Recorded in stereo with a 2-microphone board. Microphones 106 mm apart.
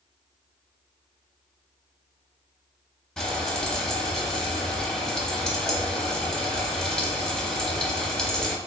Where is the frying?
5° left (ahead or behind), 0.7 m.